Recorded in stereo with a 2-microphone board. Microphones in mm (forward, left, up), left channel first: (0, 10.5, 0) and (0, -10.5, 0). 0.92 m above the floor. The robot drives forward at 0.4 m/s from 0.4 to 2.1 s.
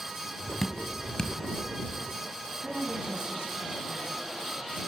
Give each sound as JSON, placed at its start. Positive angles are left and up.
{"t": 0.6, "sound": "dripping", "side_deg": 25, "distance_m": 2.0}
{"t": 2.6, "sound": "a woman speaking", "side_deg": -85, "distance_m": 6.5}